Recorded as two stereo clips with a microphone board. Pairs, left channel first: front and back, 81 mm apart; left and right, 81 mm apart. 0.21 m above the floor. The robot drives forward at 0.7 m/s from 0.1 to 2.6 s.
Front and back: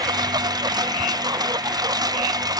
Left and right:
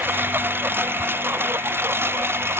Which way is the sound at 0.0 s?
155° right.